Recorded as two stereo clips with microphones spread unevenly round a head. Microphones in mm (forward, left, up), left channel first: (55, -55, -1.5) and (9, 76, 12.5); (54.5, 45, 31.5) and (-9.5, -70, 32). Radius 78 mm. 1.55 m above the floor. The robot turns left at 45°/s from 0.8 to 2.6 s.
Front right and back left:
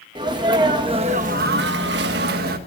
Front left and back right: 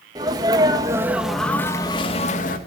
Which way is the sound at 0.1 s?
175° left.